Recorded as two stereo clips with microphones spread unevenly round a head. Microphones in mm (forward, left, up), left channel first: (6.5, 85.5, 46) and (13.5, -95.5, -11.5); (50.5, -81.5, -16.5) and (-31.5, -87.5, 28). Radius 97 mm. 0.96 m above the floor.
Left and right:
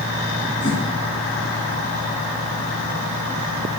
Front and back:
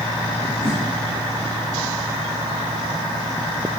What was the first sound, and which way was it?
A whoosh, 60° left.